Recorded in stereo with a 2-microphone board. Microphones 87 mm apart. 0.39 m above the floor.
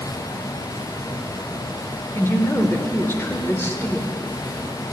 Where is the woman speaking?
30° left (ahead or behind), 0.8 m.